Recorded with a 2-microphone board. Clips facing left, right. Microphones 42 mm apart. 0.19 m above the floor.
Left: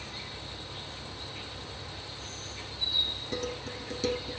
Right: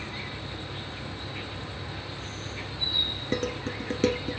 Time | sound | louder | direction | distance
0.0 | an insect | right 5 dB | 30° right (ahead or behind) | 1.2 m
3.3 | dishes clattering | right 8 dB | 45° right (ahead or behind) | 1.7 m